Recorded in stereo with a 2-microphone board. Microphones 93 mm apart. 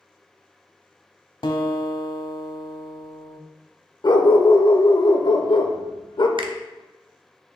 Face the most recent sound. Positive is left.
turn(degrees=-65)  # may be behind; listen again after turning